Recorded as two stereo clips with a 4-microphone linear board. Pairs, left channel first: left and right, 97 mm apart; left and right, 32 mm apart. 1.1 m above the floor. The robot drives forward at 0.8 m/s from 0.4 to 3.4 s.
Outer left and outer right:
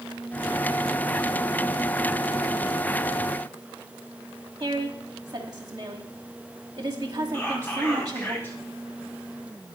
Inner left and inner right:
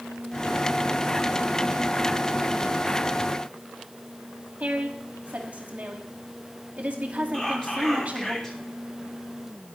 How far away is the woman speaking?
About 2 m.